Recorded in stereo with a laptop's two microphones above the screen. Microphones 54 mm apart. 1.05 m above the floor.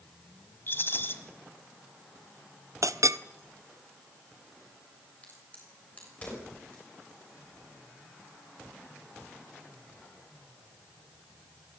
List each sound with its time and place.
0.7 s a rattle: 45° left (ahead or behind), 1.4 m
2.8 s a clink: 70° right (ahead or behind), 0.6 m
5.2 s a crack: 25° left (ahead or behind), 6 m